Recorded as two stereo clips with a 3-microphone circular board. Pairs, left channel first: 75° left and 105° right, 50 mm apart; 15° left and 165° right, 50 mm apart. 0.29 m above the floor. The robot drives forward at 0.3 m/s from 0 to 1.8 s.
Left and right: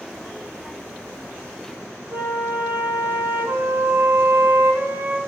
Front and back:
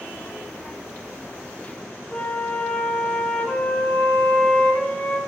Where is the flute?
55° right, 4 m.